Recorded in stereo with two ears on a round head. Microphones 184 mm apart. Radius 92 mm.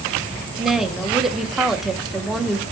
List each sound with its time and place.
0.6 s a woman speaking: centre (ahead or behind), 0.5 m